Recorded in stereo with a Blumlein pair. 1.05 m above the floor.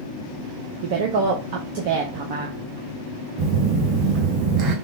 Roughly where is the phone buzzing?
Ahead right.